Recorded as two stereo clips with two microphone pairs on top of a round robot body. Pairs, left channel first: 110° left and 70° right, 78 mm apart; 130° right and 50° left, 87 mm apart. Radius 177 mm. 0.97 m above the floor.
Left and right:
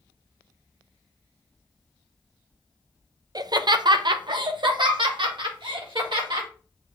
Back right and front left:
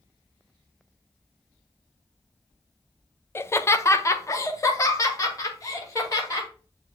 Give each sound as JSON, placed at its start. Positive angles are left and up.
{"t": 3.4, "sound": "laughter", "azimuth_deg": -75, "distance_m": 0.6}